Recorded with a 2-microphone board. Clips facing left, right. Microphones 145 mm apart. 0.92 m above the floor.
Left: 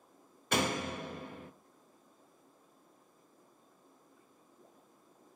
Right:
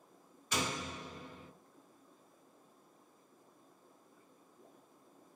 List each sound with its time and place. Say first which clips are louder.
0.5 s a door slam: left 6 dB; 60° left (ahead or behind), 0.5 m